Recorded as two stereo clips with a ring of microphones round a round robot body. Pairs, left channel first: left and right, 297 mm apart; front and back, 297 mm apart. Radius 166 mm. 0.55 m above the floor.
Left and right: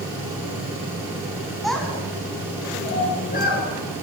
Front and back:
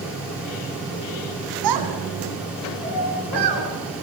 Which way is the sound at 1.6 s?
Straight behind.